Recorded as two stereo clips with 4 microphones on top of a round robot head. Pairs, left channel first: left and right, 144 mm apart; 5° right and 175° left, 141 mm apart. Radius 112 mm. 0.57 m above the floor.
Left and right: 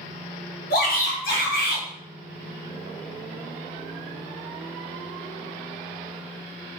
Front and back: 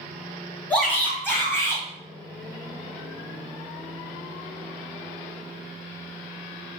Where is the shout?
75° left, 2.5 m; by 1.8 s 65° left, 3 m.